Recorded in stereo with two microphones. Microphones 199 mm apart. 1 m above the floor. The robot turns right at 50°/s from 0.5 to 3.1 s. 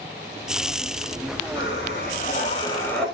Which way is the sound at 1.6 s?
100° left.